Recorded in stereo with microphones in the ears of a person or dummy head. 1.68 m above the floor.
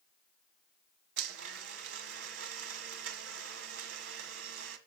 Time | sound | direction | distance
1.2 | a blender | 90° right | 1.7 m